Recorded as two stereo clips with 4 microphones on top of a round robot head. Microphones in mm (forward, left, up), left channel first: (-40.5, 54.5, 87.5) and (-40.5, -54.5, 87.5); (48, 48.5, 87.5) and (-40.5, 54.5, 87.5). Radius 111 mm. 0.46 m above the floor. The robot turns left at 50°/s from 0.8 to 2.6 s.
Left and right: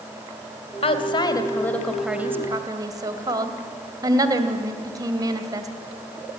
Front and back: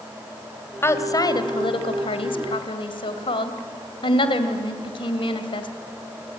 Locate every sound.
0.8 s a woman speaking: 55° left, 2.5 m; by 5.7 s 30° right, 2.5 m